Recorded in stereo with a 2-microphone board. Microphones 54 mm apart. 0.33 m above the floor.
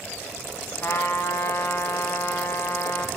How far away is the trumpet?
About 0.9 m.